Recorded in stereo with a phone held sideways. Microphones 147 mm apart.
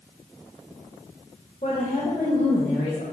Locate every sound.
1.6 s a woman speaking: 60° left (ahead or behind), 2.5 m; by 3.0 s 85° left, 4 m